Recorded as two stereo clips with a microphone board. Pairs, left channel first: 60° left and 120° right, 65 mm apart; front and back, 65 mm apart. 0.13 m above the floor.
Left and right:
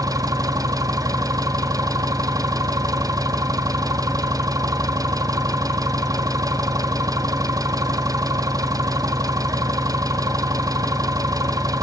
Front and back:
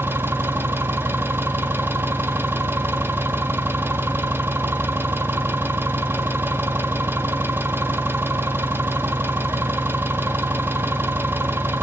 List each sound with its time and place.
0.0 s an engine running: 125° right, 1.8 m